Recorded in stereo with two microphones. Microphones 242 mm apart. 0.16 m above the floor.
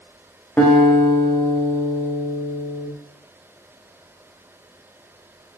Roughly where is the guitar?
Centre.